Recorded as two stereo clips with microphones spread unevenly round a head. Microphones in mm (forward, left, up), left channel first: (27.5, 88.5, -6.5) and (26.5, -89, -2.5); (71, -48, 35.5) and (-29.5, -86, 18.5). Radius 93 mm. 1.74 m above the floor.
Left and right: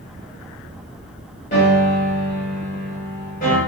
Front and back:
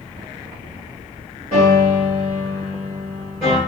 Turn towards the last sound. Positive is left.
turn(degrees=140)